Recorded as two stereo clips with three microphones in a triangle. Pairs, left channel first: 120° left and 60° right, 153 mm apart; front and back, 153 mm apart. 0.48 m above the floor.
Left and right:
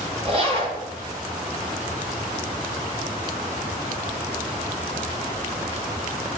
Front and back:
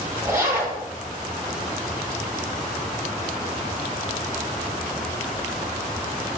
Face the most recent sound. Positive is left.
turn(degrees=-105)